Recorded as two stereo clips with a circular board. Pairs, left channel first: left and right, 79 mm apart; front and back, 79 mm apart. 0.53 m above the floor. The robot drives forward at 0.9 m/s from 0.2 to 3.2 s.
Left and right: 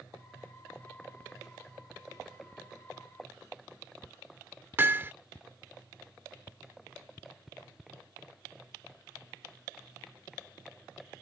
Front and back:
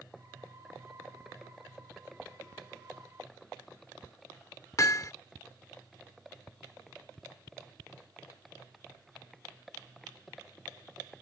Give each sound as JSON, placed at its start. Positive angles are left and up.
{"t": 4.8, "sound": "hammering", "azimuth_deg": -35}